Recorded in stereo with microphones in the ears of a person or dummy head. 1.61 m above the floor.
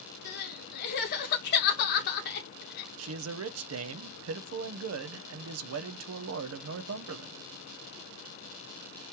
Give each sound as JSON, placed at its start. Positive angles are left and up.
{"t": 0.2, "sound": "crying", "side_deg": 55, "distance_m": 0.8}
{"t": 3.0, "sound": "a man speaking", "side_deg": -80, "distance_m": 0.7}